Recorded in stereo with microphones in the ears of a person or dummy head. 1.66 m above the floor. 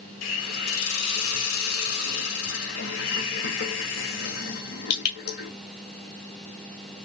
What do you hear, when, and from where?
0.2 s a hiss: 75° left (ahead or behind), 1.4 m